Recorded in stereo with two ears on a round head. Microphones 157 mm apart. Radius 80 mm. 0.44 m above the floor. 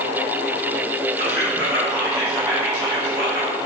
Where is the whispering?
30° left (ahead or behind), 1.9 m.